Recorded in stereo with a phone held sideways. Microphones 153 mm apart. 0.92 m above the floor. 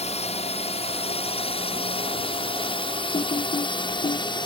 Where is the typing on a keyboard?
50° left (ahead or behind).